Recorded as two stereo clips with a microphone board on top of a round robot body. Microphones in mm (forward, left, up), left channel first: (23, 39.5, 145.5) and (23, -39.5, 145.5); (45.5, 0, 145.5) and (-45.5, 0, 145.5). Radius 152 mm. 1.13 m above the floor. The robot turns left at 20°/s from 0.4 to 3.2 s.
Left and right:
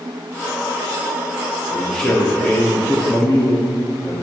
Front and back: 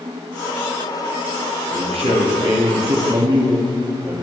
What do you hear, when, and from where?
1.7 s a man speaking: 175° left, 2.5 m; by 4.2 s 145° left, 2.5 m